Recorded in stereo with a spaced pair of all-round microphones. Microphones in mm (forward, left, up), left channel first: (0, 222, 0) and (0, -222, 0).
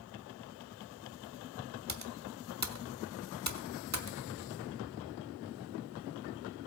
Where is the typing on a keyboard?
40° right (ahead or behind), 1.1 m.